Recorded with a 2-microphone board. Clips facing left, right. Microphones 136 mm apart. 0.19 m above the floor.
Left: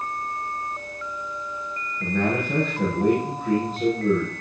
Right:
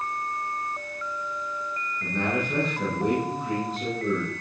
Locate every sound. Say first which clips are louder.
2.0 s a man speaking: left 4 dB; 50° left (ahead or behind), 7.5 m